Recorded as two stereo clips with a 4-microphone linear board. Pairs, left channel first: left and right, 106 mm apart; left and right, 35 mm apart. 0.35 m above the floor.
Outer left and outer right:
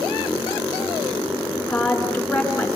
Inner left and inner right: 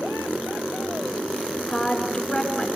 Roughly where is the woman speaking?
Centre.